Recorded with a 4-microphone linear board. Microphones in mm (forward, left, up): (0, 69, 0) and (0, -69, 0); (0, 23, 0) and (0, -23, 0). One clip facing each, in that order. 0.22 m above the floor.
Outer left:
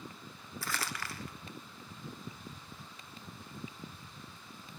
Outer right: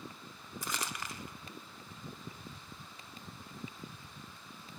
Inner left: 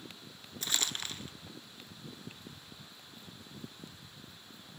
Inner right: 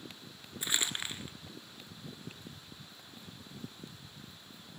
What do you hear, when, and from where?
0.6 s crumpling: 20° right (ahead or behind), 1.6 m